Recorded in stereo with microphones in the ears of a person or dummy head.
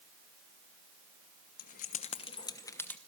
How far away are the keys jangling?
About 1.1 m.